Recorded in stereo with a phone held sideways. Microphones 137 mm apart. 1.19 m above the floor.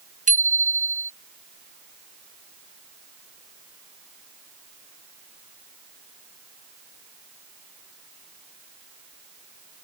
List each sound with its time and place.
0.3 s a bicycle bell: 65° right (ahead or behind)